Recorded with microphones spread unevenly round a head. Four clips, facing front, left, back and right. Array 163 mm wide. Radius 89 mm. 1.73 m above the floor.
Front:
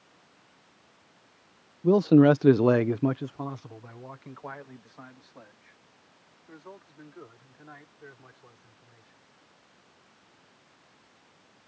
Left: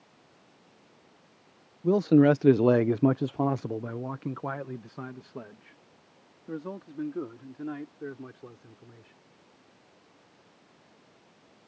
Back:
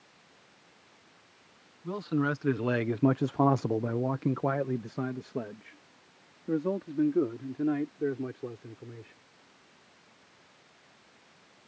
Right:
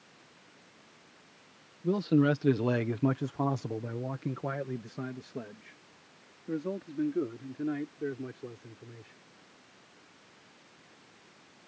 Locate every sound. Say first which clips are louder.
1.8 s a man speaking: left 6 dB, front 13 dB; 25° left; by 9.2 s 175° right